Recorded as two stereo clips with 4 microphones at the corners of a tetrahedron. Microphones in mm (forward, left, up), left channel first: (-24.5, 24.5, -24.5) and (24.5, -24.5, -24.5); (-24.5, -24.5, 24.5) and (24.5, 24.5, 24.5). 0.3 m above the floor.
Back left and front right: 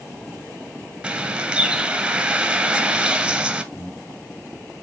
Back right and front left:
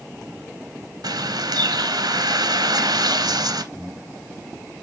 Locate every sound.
1.0 s a bird: 30° left, 0.9 m
3.7 s breathing: 120° left, 4 m